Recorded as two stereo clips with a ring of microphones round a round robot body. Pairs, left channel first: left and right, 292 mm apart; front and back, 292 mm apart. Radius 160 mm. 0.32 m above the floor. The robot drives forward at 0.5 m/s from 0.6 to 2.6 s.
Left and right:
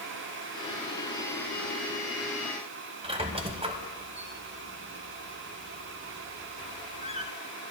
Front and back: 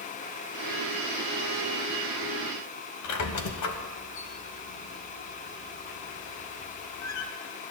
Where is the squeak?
20° right, 1.3 m.